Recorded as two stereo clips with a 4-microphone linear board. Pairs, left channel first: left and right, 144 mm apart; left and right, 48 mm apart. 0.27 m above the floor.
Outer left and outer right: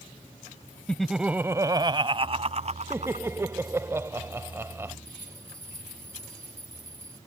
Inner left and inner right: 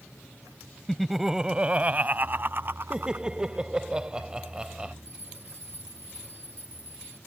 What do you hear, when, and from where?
0.9 s laughter: 10° left (ahead or behind); by 3.3 s 60° right (ahead or behind)
2.9 s laughter: 20° right (ahead or behind)
5.0 s a bell: 60° right (ahead or behind)